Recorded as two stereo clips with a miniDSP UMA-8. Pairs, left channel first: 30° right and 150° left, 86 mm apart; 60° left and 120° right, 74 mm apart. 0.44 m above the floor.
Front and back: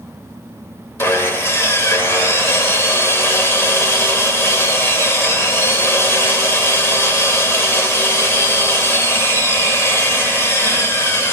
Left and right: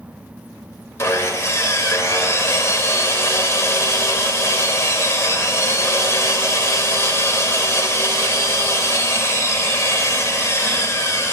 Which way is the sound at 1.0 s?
20° left.